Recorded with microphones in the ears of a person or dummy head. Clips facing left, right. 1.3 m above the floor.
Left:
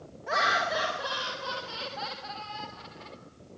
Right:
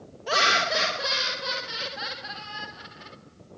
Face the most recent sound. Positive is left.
turn(degrees=-10)  # may be behind; listen again after turning